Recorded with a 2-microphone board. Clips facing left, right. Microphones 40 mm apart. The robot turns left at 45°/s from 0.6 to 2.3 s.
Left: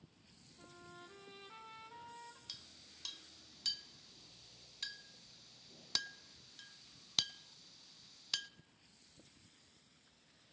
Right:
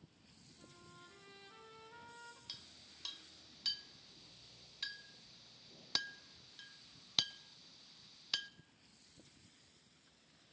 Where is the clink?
10° right (ahead or behind), 0.6 m.